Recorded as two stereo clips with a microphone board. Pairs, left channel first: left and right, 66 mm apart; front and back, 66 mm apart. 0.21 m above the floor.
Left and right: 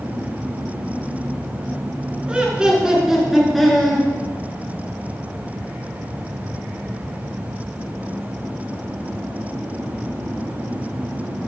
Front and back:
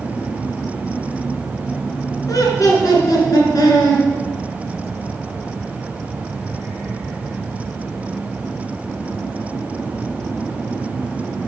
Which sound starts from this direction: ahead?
Laughter, at 2.3 s.